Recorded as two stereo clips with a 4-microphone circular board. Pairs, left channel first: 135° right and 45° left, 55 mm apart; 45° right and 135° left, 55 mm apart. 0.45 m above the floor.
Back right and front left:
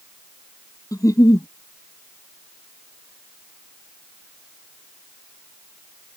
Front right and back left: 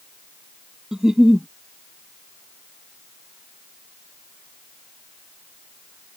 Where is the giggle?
145° right.